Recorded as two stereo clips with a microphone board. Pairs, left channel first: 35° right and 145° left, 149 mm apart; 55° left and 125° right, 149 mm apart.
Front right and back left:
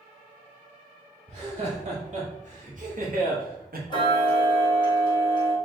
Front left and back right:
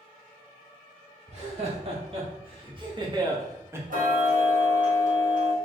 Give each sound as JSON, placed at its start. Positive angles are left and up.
{"t": 1.3, "sound": "laughter", "azimuth_deg": -170, "distance_m": 2.0}
{"t": 3.9, "sound": "ticking", "azimuth_deg": -95, "distance_m": 1.4}